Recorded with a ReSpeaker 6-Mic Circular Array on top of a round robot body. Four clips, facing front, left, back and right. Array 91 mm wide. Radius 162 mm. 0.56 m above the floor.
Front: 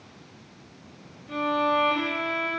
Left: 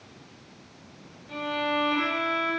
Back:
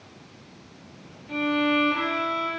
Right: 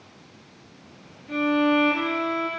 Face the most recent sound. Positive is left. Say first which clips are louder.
# right 8 dB, even
turn(degrees=-65)